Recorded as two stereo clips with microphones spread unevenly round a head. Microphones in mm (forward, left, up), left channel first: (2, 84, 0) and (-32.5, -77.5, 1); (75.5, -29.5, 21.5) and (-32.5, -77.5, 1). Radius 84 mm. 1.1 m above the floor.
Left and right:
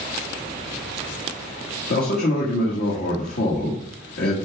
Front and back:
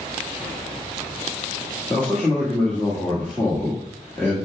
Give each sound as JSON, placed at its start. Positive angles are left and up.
{"t": 1.9, "sound": "a man speaking", "azimuth_deg": 110, "distance_m": 1.7}